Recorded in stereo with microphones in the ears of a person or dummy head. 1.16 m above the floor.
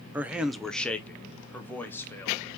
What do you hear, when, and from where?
0.1 s a man speaking: 10° right (ahead or behind), 0.6 m; by 2.5 s 10° left (ahead or behind), 1.7 m